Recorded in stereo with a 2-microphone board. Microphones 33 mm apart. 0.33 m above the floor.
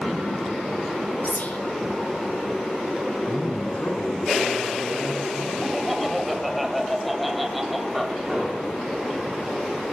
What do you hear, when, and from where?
1.2 s whispering: 65° left (ahead or behind), 3 m
3.3 s a man speaking: 70° left (ahead or behind), 4.5 m
5.6 s laughter: 5° right (ahead or behind), 1.8 m
8.3 s an explosion: 10° right (ahead or behind), 7 m